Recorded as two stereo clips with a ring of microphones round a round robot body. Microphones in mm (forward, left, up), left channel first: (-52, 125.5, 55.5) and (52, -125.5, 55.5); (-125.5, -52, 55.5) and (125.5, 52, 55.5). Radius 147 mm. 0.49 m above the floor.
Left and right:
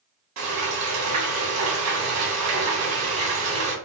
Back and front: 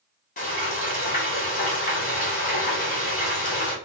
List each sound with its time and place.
0.4 s frying: 95° right, 1.8 m